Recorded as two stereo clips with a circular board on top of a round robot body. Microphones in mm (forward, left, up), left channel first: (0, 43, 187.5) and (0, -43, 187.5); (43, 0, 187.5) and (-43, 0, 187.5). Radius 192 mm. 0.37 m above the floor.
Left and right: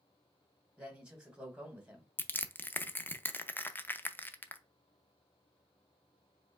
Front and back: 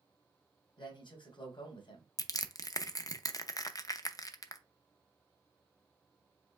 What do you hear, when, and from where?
0.8 s a man speaking: 10° right, 1.8 m
2.2 s crushing: 30° left, 0.7 m